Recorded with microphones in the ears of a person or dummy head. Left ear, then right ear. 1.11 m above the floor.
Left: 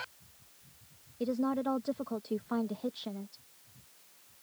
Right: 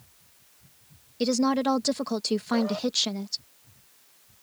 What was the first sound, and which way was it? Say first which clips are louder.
A woman speaking: right 8 dB; 75° right (ahead or behind).